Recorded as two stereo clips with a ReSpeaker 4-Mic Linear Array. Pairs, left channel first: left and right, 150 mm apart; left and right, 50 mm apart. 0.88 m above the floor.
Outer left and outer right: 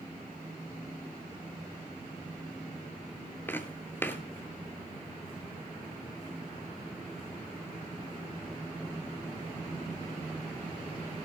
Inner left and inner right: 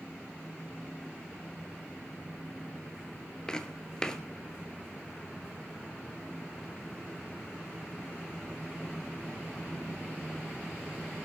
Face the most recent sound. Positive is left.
turn(degrees=15)  # may be behind; listen again after turning